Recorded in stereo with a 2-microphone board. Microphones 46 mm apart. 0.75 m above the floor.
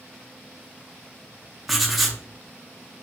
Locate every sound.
1.7 s writing: centre (ahead or behind), 0.5 m